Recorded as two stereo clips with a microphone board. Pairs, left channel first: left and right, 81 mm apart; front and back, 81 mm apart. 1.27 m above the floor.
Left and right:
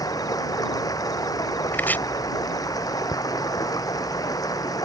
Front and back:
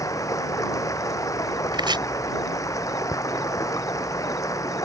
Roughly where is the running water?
Ahead left.